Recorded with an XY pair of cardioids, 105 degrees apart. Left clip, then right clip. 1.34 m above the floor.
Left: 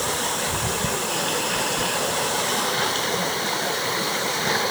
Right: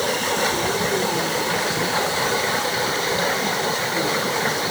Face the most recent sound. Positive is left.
No sound to turn to.